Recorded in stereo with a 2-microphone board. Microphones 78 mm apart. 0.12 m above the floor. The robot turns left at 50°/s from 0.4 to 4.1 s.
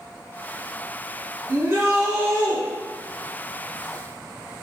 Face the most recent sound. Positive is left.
turn(degrees=160)